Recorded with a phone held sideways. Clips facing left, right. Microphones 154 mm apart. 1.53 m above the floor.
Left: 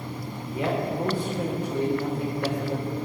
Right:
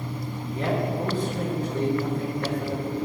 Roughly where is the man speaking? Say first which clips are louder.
Even; centre.